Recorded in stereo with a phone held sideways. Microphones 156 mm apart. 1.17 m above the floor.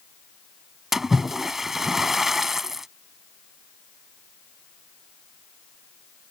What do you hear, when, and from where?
0.9 s a splash: centre (ahead or behind)